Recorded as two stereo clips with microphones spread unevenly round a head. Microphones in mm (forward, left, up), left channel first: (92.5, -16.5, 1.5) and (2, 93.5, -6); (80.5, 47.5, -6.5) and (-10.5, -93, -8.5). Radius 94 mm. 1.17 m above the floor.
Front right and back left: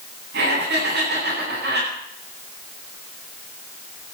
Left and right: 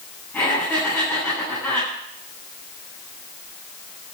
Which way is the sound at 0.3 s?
135° left.